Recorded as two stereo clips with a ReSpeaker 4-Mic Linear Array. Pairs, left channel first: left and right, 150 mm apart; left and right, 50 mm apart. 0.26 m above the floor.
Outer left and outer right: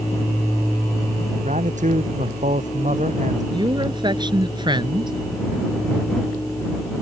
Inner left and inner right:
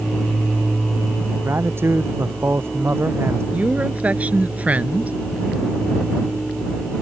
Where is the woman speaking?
30° right (ahead or behind).